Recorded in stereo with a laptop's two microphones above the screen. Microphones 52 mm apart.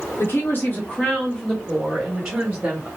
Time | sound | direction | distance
0.2 | a woman speaking | 55° left (ahead or behind) | 1.1 m